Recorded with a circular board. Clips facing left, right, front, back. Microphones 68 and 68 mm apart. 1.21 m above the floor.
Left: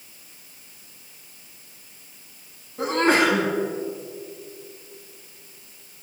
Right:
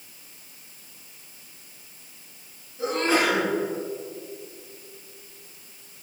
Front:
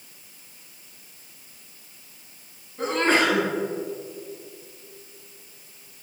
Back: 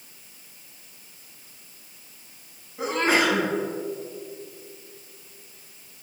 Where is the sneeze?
95° left, 4.5 m.